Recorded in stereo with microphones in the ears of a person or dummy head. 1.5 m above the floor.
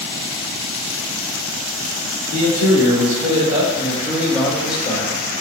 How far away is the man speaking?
About 1.9 m.